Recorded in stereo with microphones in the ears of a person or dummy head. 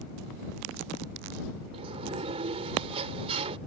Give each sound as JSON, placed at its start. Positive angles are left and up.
{"t": 1.7, "sound": "a sliding door", "side_deg": -30}